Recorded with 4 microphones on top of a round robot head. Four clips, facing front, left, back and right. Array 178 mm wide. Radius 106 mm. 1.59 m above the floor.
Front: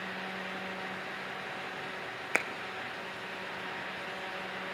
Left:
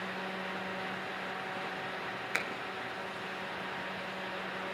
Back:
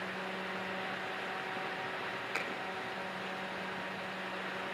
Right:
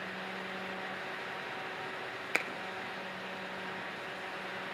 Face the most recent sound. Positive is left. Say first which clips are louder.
# right 2 dB, front 8 dB
turn(degrees=-25)